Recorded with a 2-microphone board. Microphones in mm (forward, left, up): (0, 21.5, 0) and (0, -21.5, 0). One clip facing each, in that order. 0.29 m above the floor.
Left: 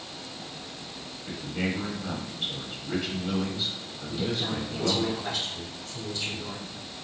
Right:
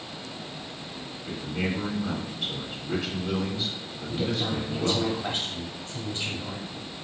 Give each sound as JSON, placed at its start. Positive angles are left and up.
{"t": 1.3, "sound": "a man speaking", "side_deg": 5, "distance_m": 1.2}
{"t": 4.1, "sound": "a woman speaking", "side_deg": -40, "distance_m": 1.1}